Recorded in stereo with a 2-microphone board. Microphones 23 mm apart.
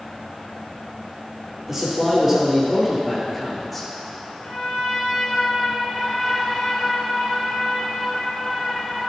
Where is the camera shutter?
I don't hear a camera shutter.